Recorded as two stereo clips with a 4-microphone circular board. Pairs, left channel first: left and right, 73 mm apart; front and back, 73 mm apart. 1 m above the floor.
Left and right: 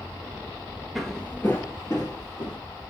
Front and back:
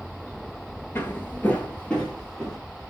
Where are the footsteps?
Straight ahead, 1.0 m; by 2.6 s 80° left, 1.9 m.